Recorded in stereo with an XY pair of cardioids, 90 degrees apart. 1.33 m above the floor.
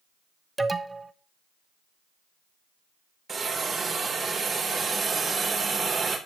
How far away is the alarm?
About 0.9 m.